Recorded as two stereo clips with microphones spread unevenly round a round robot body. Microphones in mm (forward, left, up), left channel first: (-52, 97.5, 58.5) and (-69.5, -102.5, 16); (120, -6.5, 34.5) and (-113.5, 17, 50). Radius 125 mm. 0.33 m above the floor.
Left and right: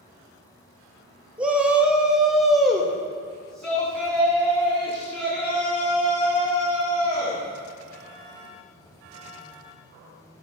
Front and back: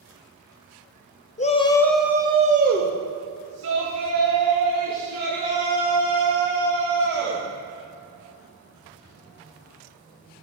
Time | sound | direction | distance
1.4 | a shout | 30° right | 1.1 m